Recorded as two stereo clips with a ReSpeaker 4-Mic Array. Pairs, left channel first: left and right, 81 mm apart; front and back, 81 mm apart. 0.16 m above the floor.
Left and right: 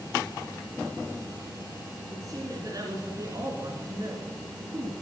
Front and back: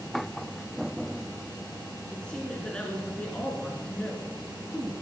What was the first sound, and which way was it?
A woman speaking, 70° right.